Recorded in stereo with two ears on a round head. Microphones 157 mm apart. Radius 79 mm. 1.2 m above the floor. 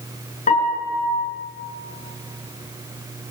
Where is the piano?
40° left (ahead or behind), 6.5 m.